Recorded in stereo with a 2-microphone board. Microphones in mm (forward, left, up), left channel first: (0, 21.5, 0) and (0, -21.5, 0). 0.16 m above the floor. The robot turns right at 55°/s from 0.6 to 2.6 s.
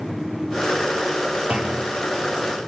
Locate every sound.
1.5 s a clunk: 25° right (ahead or behind), 8 m; by 1.9 s centre (ahead or behind), 8 m